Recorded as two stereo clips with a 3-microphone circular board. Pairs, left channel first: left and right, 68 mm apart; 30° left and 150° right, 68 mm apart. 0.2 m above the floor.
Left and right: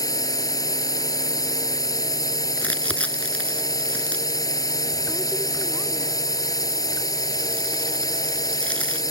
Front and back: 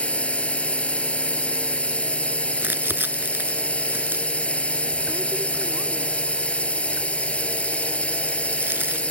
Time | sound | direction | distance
0.0 | a drone | 100° left | ?
2.6 | crumpling | 155° left | ?